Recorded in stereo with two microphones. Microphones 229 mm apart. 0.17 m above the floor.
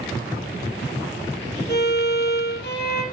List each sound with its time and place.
1.7 s a violin: 50° left (ahead or behind), 4 m